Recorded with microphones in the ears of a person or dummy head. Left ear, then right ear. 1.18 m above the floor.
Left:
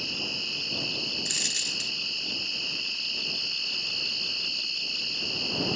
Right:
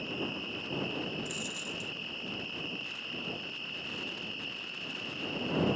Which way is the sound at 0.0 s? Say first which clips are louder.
Left 7 dB; 75° left (ahead or behind).